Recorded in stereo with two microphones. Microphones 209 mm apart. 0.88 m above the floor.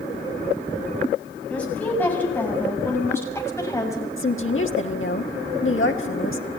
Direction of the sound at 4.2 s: 75° left (ahead or behind).